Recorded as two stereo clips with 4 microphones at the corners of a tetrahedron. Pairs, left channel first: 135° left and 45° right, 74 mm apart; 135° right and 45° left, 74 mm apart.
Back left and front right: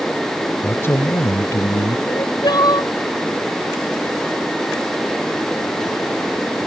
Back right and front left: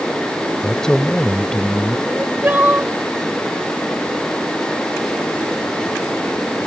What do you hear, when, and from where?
0.6 s a man speaking: 155° left; by 2.0 s 145° left
2.1 s crying: 110° left